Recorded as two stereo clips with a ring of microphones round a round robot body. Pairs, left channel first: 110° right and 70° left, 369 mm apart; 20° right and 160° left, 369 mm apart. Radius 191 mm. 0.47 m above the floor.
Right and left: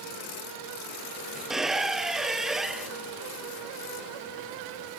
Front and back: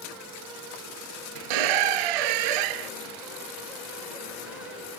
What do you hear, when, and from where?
1.4 s a squeak: 155° left